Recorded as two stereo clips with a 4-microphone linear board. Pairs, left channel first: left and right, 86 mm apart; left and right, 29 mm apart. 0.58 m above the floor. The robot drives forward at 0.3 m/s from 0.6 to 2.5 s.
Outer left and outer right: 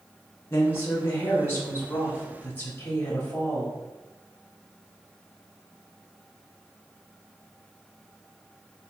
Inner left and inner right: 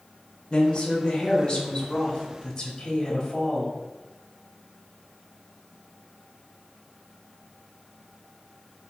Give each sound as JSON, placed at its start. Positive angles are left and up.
{"t": 0.5, "sound": "a woman speaking", "side_deg": 30, "distance_m": 0.9}